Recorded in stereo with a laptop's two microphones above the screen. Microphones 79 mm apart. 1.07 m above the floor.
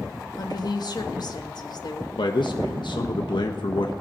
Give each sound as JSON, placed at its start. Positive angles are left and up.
{"t": 0.4, "sound": "a woman speaking", "side_deg": 60, "distance_m": 1.4}
{"t": 2.2, "sound": "a man speaking", "side_deg": 70, "distance_m": 1.0}